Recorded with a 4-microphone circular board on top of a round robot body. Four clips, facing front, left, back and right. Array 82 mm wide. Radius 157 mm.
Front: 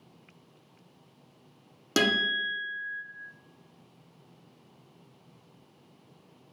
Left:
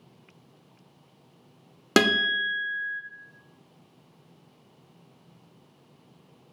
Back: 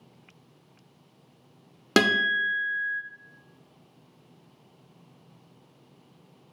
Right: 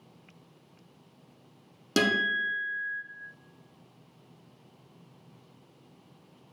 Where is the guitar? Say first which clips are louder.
Left 4 dB, back 4 dB; 125° left, 0.5 m.